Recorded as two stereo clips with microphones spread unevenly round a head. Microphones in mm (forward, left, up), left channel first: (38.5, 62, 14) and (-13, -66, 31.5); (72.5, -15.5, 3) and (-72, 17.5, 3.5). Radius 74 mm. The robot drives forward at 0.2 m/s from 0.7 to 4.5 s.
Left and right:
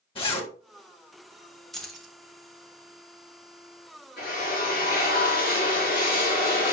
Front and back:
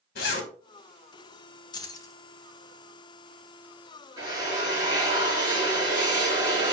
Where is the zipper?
15° left, 1.8 m.